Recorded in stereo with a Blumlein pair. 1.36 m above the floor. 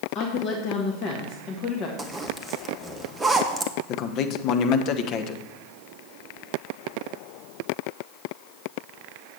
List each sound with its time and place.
0.1 s a woman speaking: 35° left, 1.5 m
2.0 s a zipper: 10° right, 1.0 m
3.9 s a man speaking: 35° left, 1.0 m